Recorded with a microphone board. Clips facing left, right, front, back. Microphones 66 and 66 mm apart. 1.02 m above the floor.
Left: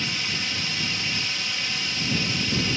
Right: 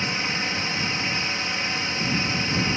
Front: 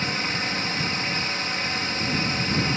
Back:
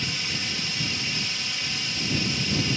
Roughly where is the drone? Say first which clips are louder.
Right 3 dB, front 5 dB; ahead right.